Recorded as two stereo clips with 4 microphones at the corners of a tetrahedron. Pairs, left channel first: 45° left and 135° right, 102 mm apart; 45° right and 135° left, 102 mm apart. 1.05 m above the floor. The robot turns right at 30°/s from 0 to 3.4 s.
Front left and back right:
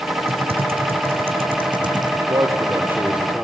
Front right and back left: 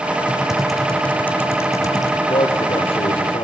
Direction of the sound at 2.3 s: 85° right.